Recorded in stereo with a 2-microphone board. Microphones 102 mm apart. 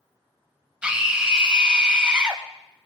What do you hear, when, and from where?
0.8 s a scream: 10° right (ahead or behind), 1.6 m